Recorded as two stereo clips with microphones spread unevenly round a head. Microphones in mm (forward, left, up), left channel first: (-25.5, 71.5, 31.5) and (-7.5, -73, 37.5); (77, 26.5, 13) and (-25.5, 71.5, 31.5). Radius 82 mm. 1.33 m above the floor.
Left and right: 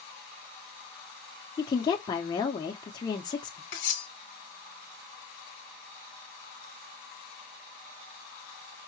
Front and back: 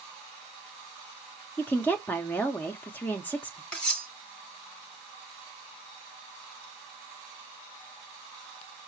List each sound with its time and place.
1.6 s a woman speaking: 40° left, 0.6 m
3.7 s cutlery clinking: 65° left, 1.0 m